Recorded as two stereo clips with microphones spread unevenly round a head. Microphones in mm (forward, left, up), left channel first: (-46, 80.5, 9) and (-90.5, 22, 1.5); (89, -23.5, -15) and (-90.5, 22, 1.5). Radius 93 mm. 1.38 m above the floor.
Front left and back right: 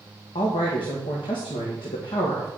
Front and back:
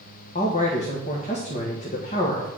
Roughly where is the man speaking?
Ahead left.